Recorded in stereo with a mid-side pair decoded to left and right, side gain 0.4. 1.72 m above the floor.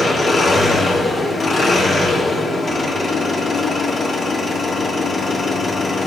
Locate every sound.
0.0 s an engine running: 45° left, 3 m